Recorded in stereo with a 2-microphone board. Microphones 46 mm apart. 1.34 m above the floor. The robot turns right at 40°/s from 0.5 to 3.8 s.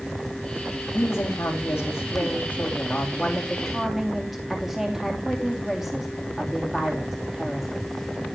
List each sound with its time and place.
0.9 s a woman speaking: 70° left, 2.5 m; by 7.7 s 175° right, 2.5 m